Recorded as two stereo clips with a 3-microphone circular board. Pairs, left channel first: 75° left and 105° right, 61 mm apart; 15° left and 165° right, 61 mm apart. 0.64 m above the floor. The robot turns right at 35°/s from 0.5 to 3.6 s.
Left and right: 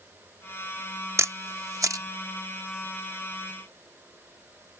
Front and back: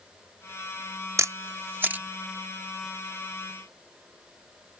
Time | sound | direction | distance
1.2 | a camera shutter | 135° right | ?